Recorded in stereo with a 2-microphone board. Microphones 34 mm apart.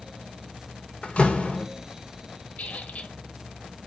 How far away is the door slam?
About 1.0 m.